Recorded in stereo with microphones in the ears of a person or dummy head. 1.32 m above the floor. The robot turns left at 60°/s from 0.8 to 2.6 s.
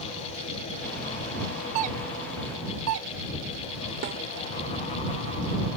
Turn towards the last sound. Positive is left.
turn(degrees=-35)  # may be behind; listen again after turning